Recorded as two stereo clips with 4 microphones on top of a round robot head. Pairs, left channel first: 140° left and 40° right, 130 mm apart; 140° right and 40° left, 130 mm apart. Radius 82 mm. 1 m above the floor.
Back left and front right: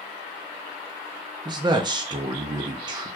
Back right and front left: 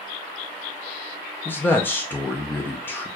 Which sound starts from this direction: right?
A man speaking, at 1.4 s.